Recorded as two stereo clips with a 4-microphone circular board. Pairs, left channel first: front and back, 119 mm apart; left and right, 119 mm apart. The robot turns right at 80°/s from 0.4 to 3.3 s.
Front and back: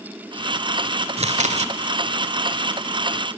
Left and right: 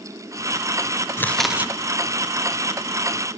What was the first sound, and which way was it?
Chewing, 160° left.